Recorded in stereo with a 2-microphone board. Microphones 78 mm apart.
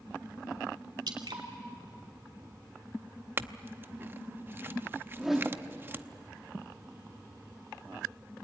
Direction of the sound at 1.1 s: 70° right (ahead or behind).